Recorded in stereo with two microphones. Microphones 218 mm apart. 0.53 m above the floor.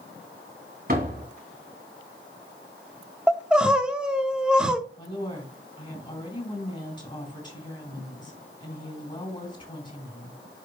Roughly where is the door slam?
Right.